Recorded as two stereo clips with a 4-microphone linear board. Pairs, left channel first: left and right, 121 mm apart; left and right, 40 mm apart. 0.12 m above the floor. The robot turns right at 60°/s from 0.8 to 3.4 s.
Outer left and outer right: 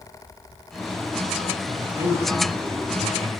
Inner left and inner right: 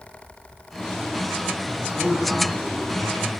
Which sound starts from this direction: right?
A man speaking, at 1.7 s.